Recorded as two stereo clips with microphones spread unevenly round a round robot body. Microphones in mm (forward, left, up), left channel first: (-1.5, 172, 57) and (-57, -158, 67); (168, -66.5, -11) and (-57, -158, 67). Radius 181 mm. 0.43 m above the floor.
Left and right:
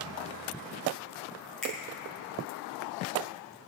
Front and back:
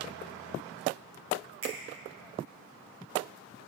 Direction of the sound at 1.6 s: 170° left.